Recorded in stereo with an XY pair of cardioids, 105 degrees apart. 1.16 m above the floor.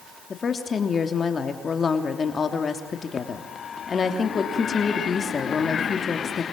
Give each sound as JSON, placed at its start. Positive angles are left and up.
{"t": 0.3, "sound": "a woman speaking", "azimuth_deg": 40, "distance_m": 3.0}